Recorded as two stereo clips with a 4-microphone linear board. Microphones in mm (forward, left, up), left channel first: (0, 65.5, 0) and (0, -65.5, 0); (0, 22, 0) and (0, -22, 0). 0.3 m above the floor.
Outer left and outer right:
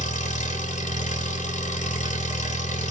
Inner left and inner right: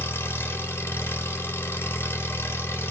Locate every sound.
0.0 s an engine running: 70° left (ahead or behind), 1.0 m